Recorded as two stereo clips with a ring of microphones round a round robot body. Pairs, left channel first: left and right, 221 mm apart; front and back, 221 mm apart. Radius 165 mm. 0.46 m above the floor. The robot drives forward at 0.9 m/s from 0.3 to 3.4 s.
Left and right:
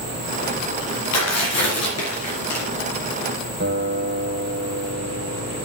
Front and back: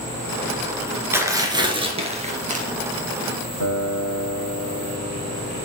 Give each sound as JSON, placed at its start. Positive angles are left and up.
{"t": 1.1, "sound": "tearing paper", "azimuth_deg": 100, "distance_m": 2.5}
{"t": 3.6, "sound": "a guitar", "azimuth_deg": -145, "distance_m": 2.5}